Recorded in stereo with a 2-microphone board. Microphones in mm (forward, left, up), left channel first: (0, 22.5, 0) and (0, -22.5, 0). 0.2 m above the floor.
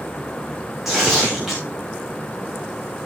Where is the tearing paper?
5° right (ahead or behind), 5.5 m.